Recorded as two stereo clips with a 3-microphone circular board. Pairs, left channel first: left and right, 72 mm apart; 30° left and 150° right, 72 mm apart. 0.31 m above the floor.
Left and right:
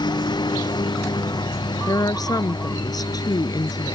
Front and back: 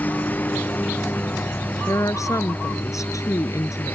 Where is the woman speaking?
70° left.